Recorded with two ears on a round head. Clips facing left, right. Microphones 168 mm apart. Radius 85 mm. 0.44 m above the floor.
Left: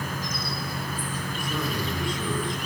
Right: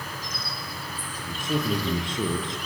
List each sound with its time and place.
0.0 s an insect: 45° left (ahead or behind), 6 m
1.2 s a man speaking: 20° right (ahead or behind), 9 m